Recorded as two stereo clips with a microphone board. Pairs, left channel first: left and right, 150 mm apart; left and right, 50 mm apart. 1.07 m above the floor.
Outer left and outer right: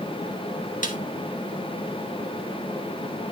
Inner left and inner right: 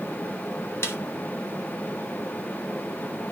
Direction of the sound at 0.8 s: 60° left (ahead or behind).